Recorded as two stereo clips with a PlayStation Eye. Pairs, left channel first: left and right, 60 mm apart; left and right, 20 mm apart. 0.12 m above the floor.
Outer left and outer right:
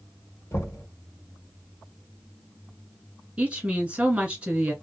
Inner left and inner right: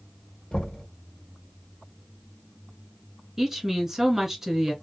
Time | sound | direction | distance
0.5 | knocking | 50° left (ahead or behind) | 1.4 m
3.4 | a woman speaking | 20° right (ahead or behind) | 1.1 m